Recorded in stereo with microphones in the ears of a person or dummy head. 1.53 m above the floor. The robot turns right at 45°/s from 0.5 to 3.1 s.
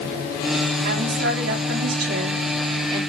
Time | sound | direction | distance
0.8 | a woman speaking | 125° right | 4 m